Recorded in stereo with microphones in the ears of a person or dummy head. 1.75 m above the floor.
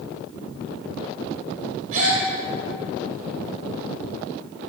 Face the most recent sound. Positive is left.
turn(degrees=-45)  # may be behind; listen again after turning